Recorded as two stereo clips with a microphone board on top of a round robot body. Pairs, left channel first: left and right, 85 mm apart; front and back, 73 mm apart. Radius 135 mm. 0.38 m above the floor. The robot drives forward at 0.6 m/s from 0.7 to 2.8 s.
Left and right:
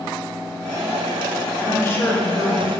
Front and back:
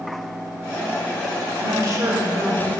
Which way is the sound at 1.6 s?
145° left.